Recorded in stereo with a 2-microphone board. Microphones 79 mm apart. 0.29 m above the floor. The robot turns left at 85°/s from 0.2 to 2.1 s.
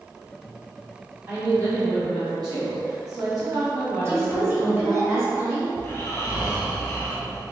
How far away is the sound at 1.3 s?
About 1.9 m.